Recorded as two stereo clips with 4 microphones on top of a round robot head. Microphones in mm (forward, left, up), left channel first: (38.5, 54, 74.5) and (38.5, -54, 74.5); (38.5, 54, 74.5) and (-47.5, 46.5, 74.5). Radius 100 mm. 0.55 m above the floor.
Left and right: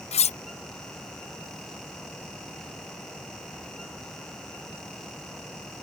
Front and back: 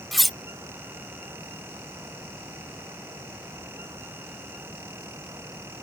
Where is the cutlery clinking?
95° left.